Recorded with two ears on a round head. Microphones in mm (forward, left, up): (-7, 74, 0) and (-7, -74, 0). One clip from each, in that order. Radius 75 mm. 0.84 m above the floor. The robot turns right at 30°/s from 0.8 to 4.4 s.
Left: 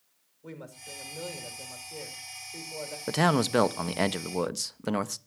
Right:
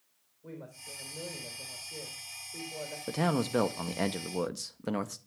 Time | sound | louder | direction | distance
0.4 | a woman speaking | left 2 dB | 100° left | 3.5 m
3.1 | a man speaking | left 6 dB | 110° left | 0.6 m